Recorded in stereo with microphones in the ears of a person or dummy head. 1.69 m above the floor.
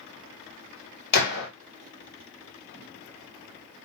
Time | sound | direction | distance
1.1 | a gunshot | 55° left (ahead or behind) | 1.3 m